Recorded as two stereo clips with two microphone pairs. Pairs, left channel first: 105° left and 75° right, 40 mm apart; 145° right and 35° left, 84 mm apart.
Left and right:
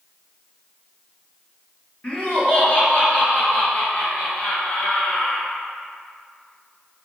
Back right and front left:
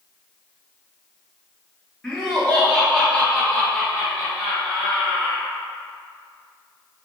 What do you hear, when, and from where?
2.0 s laughter: 140° left, 1.5 m; by 5.5 s 135° left, 3 m